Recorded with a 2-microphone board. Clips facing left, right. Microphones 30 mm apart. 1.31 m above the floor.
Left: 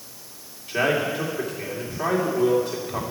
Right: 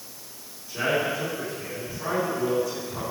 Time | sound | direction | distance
0.7 | a man speaking | 60° left (ahead or behind) | 3 m